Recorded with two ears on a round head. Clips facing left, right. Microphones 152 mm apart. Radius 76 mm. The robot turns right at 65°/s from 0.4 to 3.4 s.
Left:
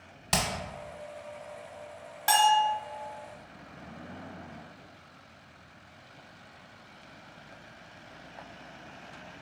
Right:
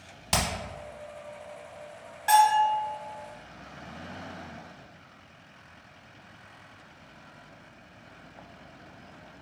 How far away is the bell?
About 1.0 m.